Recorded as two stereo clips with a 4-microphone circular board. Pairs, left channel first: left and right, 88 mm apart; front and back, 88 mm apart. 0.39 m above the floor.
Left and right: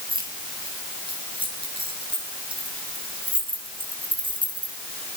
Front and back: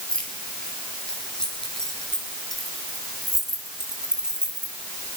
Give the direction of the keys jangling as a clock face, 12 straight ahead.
3 o'clock.